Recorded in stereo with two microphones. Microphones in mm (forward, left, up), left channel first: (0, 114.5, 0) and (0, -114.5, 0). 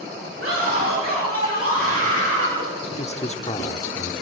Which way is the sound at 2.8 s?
30° left (ahead or behind).